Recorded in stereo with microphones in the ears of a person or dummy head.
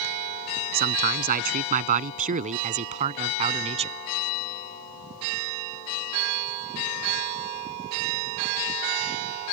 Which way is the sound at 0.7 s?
50° right (ahead or behind).